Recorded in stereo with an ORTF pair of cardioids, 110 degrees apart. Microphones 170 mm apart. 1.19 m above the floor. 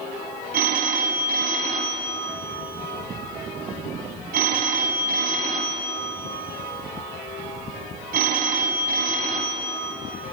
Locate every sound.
0.5 s a phone ringing: 60° right, 4.5 m